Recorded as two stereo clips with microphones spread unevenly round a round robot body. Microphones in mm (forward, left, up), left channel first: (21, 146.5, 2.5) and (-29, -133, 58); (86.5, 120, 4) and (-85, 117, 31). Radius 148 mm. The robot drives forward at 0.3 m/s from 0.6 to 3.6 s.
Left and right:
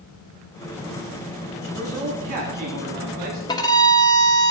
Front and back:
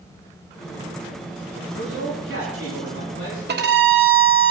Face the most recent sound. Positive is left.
turn(degrees=155)